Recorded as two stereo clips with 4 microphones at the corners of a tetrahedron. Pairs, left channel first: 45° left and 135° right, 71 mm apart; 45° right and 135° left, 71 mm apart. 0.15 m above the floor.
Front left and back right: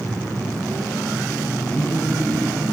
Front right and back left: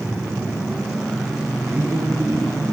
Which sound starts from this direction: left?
A man speaking, at 1.7 s.